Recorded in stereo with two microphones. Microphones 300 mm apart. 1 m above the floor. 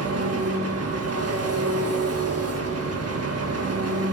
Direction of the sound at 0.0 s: 55° right (ahead or behind).